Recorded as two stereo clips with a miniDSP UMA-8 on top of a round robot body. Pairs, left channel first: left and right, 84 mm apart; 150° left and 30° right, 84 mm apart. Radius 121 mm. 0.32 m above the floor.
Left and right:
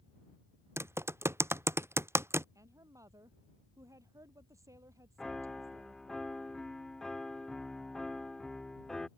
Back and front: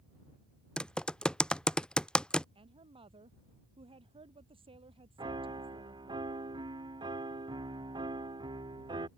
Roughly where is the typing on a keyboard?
Behind right.